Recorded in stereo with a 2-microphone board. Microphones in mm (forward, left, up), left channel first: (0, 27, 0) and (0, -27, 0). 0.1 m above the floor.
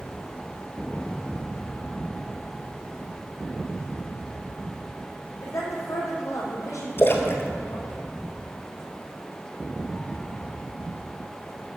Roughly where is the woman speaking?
Left.